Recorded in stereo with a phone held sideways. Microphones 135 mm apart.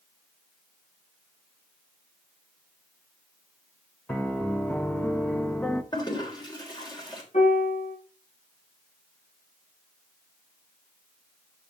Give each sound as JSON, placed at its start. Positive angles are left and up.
{"t": 4.1, "sound": "a piano", "side_deg": 10, "distance_m": 1.1}
{"t": 5.9, "sound": "a toilet flushing", "side_deg": 35, "distance_m": 3.0}
{"t": 7.3, "sound": "a piano", "side_deg": 65, "distance_m": 7.0}